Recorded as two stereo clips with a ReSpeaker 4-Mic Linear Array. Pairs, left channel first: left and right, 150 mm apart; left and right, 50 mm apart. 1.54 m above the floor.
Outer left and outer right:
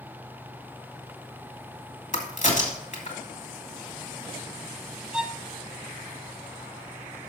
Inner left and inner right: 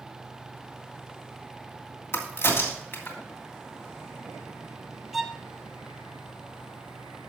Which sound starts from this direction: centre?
A violin, at 5.1 s.